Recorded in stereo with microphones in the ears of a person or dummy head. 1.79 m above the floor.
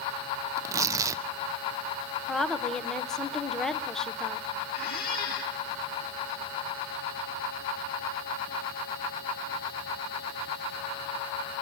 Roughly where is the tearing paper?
Centre.